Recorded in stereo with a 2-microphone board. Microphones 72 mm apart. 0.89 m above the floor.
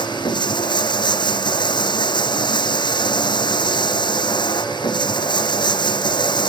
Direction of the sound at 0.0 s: 80° left.